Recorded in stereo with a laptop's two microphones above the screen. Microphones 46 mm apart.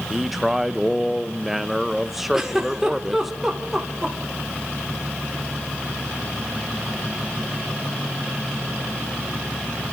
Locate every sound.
0.1 s a man speaking: 5° right (ahead or behind), 0.5 m
2.3 s a giggle: 10° right (ahead or behind), 1.8 m